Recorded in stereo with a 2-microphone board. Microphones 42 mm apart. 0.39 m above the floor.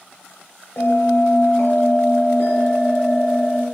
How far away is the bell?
About 0.9 m.